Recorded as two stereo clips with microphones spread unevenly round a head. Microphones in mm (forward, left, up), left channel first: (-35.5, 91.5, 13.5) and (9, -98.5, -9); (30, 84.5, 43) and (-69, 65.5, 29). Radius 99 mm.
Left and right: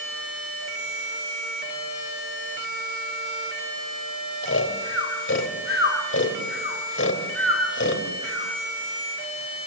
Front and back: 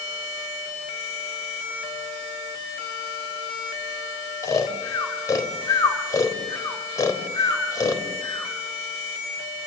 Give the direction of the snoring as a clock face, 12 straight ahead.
10 o'clock.